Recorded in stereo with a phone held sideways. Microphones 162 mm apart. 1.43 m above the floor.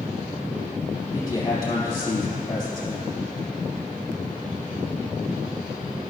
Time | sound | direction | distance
1.1 | a man speaking | 30° left (ahead or behind) | 3 m